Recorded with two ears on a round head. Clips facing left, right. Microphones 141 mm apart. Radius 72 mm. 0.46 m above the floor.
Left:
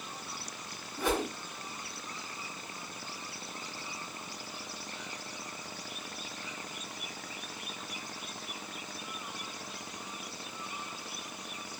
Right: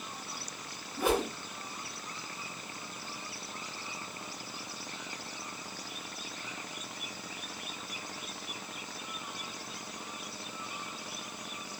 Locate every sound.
1.0 s a whoosh: 10° right (ahead or behind), 1.9 m